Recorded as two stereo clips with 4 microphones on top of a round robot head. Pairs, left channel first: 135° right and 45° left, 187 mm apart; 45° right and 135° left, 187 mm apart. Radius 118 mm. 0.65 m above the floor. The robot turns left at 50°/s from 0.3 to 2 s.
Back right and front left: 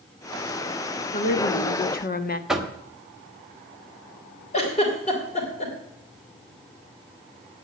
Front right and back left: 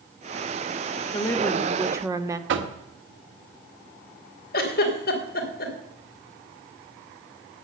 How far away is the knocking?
About 1.7 m.